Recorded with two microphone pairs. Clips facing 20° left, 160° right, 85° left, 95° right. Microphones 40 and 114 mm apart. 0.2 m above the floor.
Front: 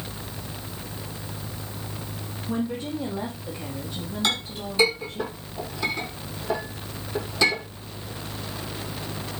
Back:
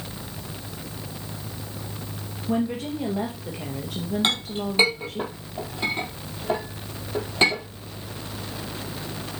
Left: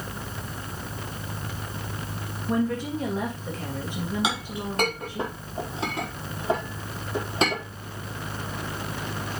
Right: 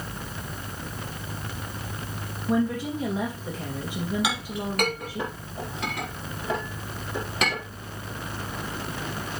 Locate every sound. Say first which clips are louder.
2.5 s a woman speaking: back 3 dB, right 1 dB; 175° right, 3.5 m
4.2 s a clink: front 1 dB, even; 145° left, 5.5 m